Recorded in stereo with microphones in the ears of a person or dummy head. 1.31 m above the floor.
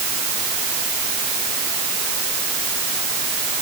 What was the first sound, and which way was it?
Only background noise.